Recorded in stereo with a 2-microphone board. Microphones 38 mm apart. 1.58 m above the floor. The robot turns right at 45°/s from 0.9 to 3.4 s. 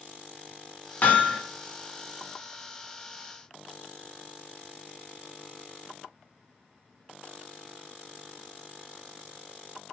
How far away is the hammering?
About 0.6 m.